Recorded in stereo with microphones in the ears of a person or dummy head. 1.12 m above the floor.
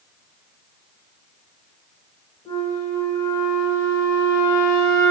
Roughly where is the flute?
Left.